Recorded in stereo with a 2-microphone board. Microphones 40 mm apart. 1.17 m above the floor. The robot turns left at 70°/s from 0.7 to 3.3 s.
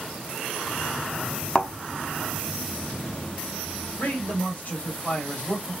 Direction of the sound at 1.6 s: 20° left (ahead or behind).